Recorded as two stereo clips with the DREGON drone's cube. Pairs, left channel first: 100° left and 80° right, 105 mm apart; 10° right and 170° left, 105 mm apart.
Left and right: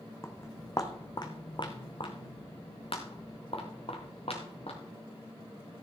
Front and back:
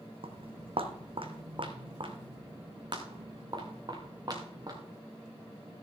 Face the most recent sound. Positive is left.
turn(degrees=120)